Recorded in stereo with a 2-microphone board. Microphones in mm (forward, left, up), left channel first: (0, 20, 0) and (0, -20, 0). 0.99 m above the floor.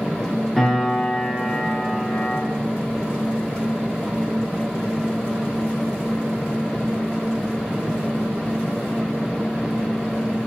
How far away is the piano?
About 0.7 m.